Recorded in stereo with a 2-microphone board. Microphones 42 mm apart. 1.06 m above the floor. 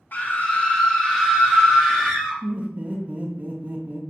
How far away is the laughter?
About 0.6 m.